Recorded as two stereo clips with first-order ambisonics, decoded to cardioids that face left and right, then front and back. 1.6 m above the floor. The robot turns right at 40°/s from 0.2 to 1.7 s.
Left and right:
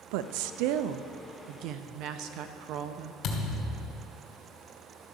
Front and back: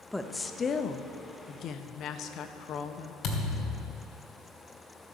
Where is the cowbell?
No cowbell in this recording.